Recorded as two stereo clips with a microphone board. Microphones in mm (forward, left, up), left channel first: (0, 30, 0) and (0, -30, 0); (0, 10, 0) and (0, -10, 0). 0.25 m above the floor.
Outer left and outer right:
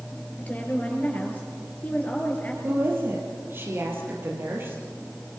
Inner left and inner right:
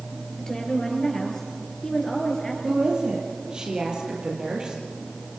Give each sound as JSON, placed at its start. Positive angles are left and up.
{"t": 0.4, "sound": "a woman speaking", "side_deg": 25, "distance_m": 5.0}
{"t": 2.6, "sound": "a woman speaking", "side_deg": -40, "distance_m": 5.5}